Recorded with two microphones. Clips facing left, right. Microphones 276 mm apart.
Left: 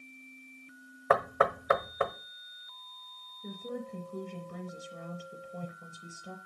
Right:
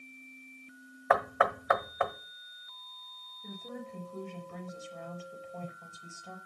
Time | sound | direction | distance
1.1 | knocking | 35° left (ahead or behind) | 1.3 m
3.4 | a woman speaking | 40° left (ahead or behind) | 5.5 m